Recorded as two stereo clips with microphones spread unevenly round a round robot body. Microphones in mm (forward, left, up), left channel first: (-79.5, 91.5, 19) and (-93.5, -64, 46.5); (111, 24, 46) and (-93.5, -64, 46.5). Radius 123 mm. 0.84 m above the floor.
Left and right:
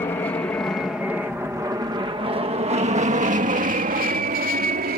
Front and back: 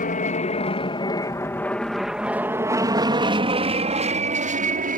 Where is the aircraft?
35° left; by 5.0 s 110° right.